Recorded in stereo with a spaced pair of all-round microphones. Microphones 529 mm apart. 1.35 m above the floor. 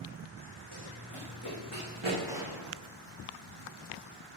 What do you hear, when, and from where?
0.7 s running footsteps: 40° right (ahead or behind), 6.5 m; by 2.2 s 25° right (ahead or behind), 7.5 m
2.3 s a gunshot: 5° right (ahead or behind), 2 m